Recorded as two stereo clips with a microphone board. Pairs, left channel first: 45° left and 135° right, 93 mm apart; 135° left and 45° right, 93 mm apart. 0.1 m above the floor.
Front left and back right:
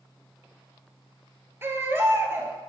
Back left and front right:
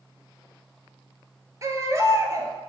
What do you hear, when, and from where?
1.6 s a baby crying: 80° right, 0.8 m